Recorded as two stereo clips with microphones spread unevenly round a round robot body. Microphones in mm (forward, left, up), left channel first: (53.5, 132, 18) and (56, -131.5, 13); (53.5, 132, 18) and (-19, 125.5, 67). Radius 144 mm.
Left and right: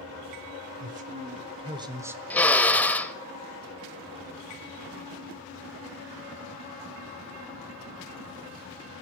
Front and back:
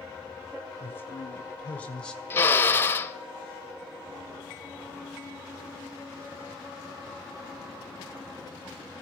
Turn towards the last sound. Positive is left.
turn(degrees=5)